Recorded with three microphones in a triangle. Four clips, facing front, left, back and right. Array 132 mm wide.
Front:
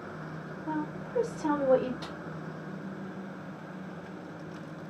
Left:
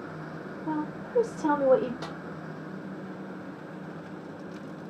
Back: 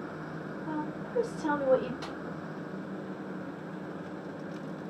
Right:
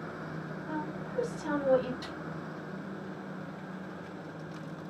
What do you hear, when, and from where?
0.7 s a woman speaking: 85° left, 2.5 m
2.0 s a snare drum: 90° left, 2.5 m